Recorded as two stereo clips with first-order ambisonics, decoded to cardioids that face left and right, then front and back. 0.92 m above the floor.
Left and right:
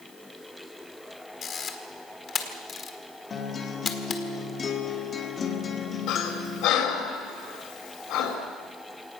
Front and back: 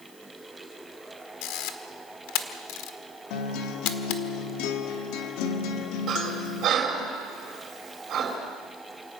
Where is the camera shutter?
25° left, 1.5 m.